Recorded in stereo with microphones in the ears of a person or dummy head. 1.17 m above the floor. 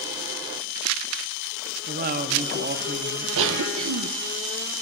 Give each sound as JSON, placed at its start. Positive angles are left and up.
{"t": 1.9, "sound": "a woman speaking", "side_deg": -45, "distance_m": 0.8}
{"t": 3.4, "sound": "a cough", "side_deg": -80, "distance_m": 0.6}